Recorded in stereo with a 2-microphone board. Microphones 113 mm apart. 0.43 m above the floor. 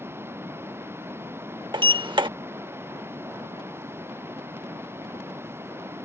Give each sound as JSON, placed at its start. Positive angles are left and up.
{"t": 0.0, "sound": "running water", "side_deg": -20}
{"t": 1.7, "sound": "a sliding door", "side_deg": -45}